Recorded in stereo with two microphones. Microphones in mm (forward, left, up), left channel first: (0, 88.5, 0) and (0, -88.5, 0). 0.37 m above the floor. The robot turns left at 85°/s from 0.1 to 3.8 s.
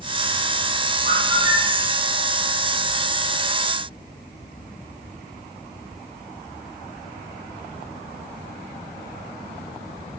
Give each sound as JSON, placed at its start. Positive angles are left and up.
{"t": 1.1, "sound": "a bird", "azimuth_deg": -125, "distance_m": 8.0}